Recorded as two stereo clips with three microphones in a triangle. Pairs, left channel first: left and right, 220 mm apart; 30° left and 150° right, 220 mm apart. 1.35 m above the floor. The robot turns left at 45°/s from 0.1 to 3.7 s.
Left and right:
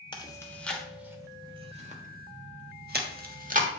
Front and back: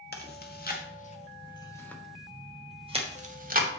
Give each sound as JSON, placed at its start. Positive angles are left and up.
{"t": 0.1, "sound": "chewing", "azimuth_deg": 30, "distance_m": 1.3}